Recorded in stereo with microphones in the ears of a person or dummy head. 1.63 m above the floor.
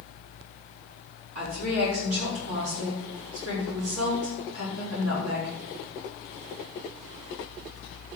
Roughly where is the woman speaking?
Right.